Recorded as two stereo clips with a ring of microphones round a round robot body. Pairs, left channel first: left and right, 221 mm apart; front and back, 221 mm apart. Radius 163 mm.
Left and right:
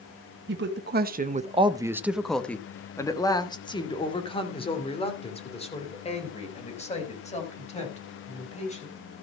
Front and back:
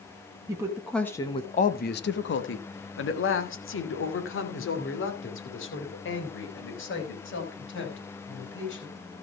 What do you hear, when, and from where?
0.5 s a woman speaking: 105° right, 1.2 m; by 9.0 s 30° left, 6.5 m